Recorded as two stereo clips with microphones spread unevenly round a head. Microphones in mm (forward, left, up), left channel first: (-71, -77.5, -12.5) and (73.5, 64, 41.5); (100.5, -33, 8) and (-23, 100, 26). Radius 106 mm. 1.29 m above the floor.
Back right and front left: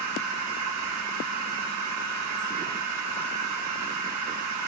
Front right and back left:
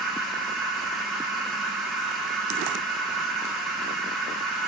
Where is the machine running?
45° left, 1.7 m.